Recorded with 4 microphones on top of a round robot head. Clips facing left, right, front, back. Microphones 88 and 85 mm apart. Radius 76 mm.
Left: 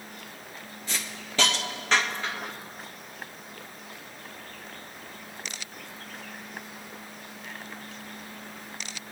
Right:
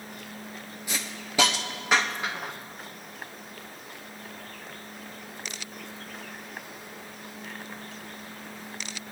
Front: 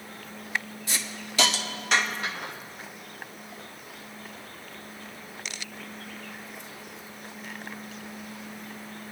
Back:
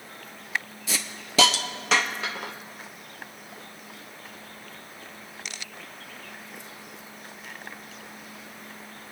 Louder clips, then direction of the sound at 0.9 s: Right 1 dB, back 2 dB; 175° right.